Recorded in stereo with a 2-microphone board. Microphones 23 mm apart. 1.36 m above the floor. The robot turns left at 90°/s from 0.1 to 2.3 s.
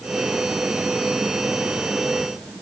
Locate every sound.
Only background noise.